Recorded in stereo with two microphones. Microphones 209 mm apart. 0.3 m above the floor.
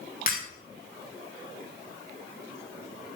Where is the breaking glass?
45° left (ahead or behind), 5 m.